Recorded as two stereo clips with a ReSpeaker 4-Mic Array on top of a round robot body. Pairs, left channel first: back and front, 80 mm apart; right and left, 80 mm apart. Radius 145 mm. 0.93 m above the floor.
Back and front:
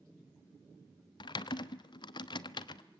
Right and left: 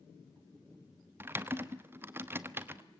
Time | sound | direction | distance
1.2 | typing on a keyboard | 155° left | 1.0 m